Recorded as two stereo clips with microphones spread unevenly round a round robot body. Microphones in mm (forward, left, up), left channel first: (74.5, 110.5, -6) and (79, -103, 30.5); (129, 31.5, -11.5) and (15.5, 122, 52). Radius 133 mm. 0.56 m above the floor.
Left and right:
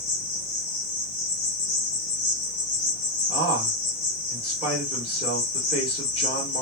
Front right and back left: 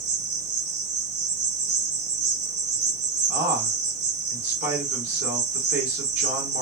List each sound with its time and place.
0.0 s an insect: 150° left, 0.9 m
3.3 s a man speaking: 170° right, 1.8 m